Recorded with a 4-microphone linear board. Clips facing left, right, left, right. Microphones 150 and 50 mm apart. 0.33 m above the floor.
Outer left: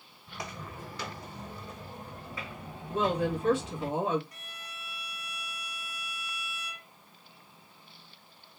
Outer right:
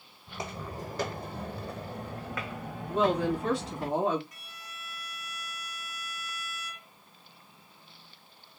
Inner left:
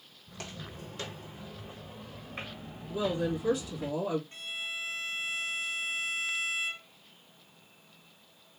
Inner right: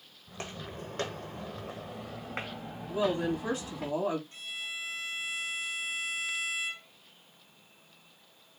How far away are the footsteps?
About 1.0 m.